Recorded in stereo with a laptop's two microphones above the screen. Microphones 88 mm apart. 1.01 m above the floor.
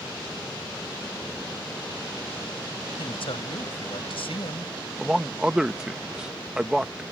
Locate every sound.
3.0 s a man speaking: 85° left
5.0 s a man speaking: 10° right (ahead or behind)